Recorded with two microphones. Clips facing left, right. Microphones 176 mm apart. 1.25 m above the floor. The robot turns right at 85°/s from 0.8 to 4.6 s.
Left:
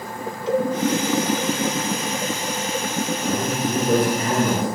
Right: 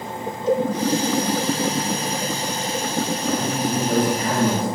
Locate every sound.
0.5 s a cowbell: 50° right (ahead or behind), 2 m
3.2 s a man speaking: 50° left, 4.5 m; by 4.7 s 165° left, 4.5 m